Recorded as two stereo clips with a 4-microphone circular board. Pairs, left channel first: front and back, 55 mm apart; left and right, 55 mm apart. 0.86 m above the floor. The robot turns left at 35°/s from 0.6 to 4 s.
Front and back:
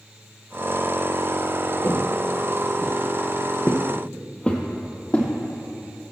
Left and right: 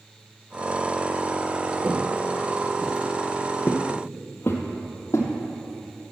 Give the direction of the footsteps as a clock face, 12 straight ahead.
1 o'clock.